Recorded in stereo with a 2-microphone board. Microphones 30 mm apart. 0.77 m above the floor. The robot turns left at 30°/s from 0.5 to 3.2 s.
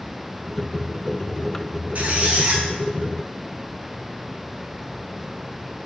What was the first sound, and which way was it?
A squeak, 50° right (ahead or behind).